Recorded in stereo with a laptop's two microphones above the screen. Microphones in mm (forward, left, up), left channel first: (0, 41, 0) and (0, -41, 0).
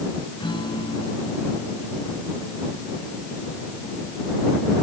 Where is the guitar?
80° left.